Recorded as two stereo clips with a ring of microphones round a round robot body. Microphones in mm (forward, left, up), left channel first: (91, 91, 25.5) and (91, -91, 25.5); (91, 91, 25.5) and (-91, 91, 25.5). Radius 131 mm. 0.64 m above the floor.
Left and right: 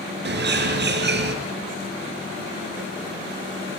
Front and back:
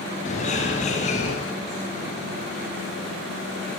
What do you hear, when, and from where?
0.2 s a bird: 65° right, 3.5 m